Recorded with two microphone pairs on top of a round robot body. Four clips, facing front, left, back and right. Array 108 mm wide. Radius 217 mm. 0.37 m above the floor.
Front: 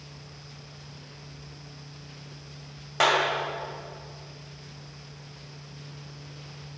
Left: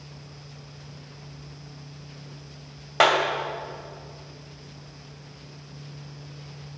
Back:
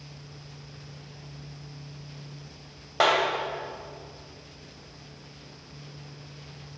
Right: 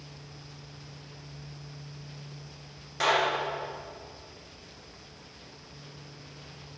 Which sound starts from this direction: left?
A clap, at 3.0 s.